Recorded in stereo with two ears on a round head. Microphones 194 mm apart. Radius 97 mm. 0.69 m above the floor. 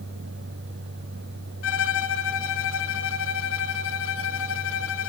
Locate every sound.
1.6 s a violin: 65° left (ahead or behind), 2.5 m